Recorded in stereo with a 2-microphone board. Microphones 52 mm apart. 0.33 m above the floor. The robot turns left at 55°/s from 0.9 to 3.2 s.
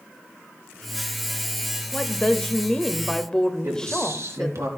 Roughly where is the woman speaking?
Centre.